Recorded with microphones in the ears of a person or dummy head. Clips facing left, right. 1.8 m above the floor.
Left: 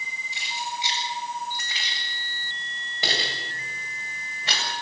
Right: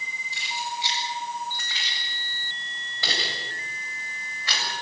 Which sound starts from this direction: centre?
Keys jangling, at 0.3 s.